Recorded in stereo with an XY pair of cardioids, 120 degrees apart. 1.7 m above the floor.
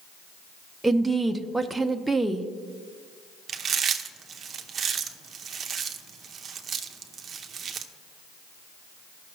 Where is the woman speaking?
10° right, 0.6 m.